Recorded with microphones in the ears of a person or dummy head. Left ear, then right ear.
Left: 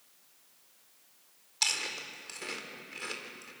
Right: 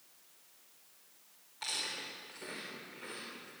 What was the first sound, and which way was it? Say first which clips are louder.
Chewing: left 6 dB; 85° left.